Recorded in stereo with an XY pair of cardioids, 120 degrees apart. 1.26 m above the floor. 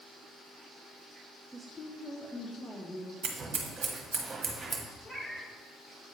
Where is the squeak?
I don't hear a squeak.